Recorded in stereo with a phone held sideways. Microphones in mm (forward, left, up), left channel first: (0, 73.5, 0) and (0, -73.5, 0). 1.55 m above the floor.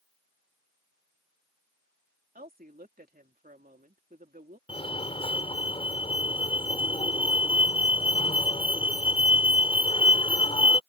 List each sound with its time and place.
2.4 s a woman speaking: 80° right
4.7 s a fire alarm: 40° left (ahead or behind)